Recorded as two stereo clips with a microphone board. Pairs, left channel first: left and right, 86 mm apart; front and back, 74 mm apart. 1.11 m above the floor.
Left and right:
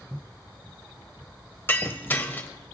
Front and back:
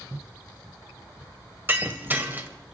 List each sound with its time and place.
1.7 s breaking glass: 140° left, 1.0 m